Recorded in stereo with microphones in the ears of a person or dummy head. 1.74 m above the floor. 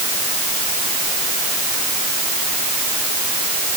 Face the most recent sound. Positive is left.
No sound to turn to.